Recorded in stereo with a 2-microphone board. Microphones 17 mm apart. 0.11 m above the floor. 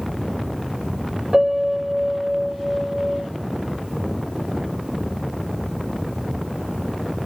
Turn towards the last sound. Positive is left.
turn(degrees=-40)  # may be behind; listen again after turning